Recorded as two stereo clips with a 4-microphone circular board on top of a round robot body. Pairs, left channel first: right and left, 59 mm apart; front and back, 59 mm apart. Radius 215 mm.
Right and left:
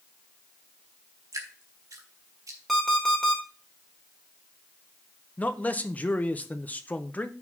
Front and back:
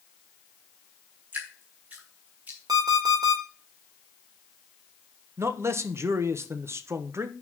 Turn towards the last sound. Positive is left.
turn(degrees=-150)